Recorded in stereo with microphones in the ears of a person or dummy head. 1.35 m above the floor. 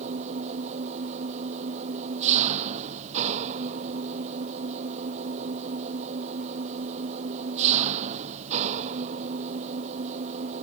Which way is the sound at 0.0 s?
40° right (ahead or behind).